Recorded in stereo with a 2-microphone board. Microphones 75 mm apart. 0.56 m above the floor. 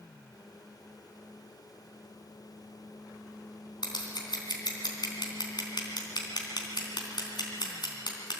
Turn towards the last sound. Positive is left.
turn(degrees=70)  # may be behind; listen again after turning